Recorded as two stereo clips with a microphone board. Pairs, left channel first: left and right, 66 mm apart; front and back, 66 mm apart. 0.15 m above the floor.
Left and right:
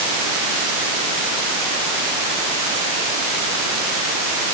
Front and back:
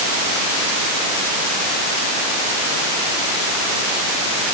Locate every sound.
Only background noise.